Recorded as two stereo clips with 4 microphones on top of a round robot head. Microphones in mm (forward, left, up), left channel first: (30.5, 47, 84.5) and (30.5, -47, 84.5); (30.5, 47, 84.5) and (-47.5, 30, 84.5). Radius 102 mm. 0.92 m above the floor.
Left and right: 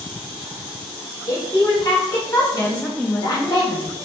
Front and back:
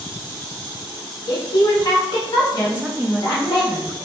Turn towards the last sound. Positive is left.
turn(degrees=150)